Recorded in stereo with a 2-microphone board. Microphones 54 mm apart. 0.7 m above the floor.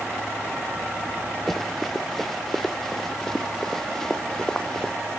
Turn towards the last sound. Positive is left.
turn(degrees=10)  # may be behind; listen again after turning